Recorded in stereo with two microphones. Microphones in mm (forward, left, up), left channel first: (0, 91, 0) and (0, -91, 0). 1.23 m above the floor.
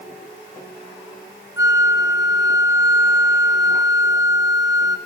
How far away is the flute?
About 0.9 m.